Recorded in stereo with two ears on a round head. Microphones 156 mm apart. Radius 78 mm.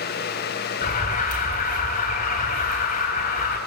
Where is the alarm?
45° left (ahead or behind), 3.5 m.